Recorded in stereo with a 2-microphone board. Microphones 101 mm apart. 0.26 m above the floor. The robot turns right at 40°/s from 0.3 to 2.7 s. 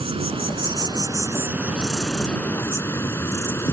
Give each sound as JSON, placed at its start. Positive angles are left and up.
{"t": 0.0, "sound": "an insect", "azimuth_deg": -70}